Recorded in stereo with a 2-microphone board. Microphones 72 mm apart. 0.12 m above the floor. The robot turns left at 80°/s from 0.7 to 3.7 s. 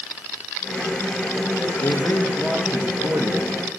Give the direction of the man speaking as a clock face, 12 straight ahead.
10 o'clock.